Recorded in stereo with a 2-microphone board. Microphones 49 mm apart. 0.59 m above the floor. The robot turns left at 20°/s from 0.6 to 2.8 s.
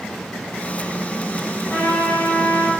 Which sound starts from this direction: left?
A trumpet, at 1.7 s.